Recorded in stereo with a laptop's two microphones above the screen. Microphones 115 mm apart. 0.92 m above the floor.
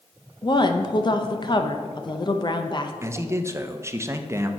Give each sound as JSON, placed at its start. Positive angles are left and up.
{"t": 0.4, "sound": "a woman speaking", "side_deg": 40, "distance_m": 0.5}
{"t": 3.0, "sound": "a man speaking", "side_deg": -25, "distance_m": 0.6}